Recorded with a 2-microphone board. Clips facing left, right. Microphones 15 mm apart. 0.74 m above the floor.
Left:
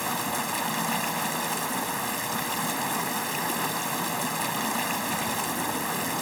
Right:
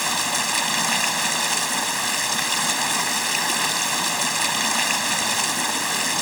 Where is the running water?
65° right (ahead or behind).